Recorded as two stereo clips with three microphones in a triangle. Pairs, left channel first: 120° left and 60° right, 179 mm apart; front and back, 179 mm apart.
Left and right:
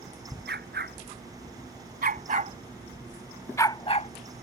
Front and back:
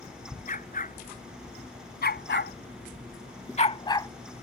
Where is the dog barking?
40° right; by 4.1 s 70° left.